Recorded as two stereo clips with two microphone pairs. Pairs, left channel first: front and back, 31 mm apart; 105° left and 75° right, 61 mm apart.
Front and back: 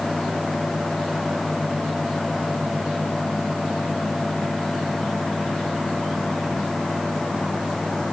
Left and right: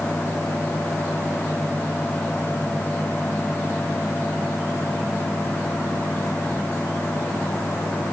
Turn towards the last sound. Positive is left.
No sound to turn to.